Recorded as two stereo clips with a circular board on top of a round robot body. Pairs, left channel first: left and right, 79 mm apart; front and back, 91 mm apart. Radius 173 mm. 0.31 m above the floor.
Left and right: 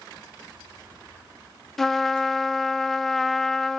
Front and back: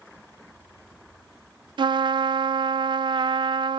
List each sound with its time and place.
1.8 s a trumpet: 175° left, 0.8 m